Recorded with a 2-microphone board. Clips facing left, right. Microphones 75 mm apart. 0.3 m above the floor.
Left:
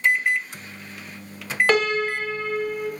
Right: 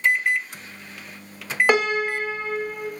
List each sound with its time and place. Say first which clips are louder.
1.7 s a piano: even; 15° right (ahead or behind), 0.5 m